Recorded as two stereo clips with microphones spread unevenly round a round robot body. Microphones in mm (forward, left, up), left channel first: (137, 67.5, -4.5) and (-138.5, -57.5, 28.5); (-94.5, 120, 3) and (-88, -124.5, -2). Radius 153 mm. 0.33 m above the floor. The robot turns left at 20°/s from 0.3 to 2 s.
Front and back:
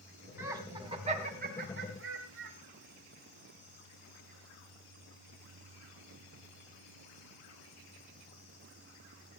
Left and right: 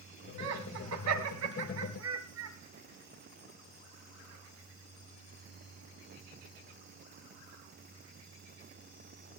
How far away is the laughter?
About 2 m.